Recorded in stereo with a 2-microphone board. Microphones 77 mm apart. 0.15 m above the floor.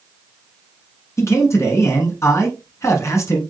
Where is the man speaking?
40° left (ahead or behind), 1.3 m.